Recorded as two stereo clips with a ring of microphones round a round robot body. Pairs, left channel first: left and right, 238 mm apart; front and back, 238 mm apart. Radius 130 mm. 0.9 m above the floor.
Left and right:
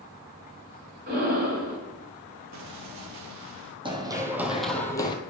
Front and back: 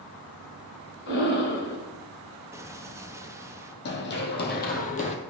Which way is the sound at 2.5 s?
100° right.